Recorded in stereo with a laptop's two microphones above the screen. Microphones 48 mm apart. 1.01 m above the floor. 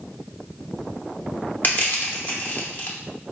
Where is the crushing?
40° left (ahead or behind), 0.8 m.